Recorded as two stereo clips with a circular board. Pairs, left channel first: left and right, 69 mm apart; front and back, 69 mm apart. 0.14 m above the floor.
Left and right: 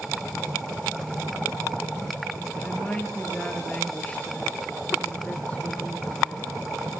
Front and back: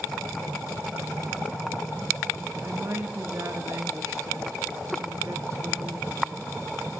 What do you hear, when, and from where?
2.6 s a woman speaking: 155° left, 3 m